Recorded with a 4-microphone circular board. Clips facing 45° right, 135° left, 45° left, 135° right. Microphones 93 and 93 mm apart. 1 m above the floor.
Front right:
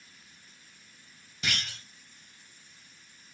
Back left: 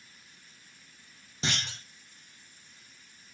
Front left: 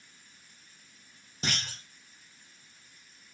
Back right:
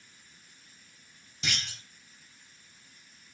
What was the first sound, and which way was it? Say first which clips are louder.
A clunk: back left 1 dB, front left 2 dB; 80° left.